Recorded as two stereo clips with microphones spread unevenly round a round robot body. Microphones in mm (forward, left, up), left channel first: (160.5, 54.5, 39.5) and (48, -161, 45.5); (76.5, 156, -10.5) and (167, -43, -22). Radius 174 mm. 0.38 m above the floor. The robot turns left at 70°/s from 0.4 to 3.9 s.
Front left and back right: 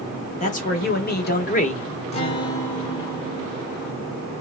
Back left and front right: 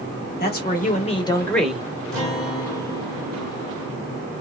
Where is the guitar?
30° left, 1.4 m; by 4.3 s 95° right, 1.4 m.